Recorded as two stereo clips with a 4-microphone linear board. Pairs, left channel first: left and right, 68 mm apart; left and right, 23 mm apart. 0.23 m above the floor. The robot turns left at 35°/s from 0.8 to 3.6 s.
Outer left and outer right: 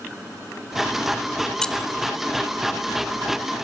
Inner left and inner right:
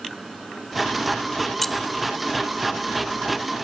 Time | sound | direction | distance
1.6 | keys jangling | 10° left (ahead or behind) | 0.7 m